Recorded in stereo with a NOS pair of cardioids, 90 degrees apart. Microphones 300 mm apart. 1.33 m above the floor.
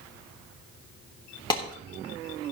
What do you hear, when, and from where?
1.5 s a clap: 15° left, 3.5 m